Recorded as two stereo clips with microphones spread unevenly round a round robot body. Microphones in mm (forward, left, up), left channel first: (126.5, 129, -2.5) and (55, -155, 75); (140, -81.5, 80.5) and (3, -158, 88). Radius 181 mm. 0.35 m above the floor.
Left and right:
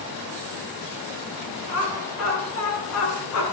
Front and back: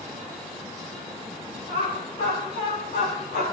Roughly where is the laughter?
Ahead left.